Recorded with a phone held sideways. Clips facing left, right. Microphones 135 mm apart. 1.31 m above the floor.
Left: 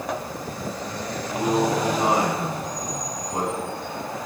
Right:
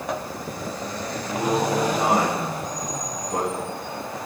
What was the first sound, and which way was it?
A man speaking, 50° right (ahead or behind).